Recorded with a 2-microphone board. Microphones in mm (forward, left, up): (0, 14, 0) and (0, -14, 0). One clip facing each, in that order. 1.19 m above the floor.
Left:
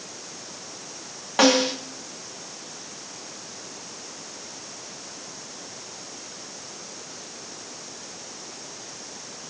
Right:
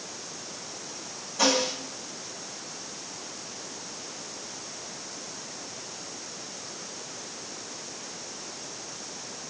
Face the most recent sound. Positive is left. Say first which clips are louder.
# left 6 dB
turn(degrees=70)  # may be behind; listen again after turning